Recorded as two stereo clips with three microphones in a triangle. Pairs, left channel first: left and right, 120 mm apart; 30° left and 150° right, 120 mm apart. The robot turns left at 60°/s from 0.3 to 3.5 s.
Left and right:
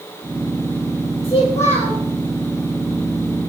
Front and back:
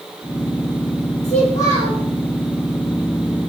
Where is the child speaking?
45° left, 10 m; by 2.0 s straight ahead, 10 m.